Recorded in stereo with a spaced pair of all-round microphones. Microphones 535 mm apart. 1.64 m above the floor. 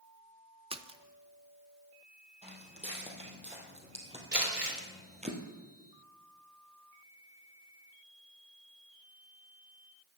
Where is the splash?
10° right (ahead or behind), 0.5 m.